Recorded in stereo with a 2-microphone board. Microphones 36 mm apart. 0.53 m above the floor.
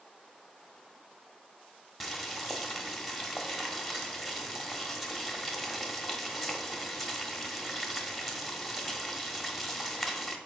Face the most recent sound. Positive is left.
turn(degrees=0)  # may be behind; listen again after turning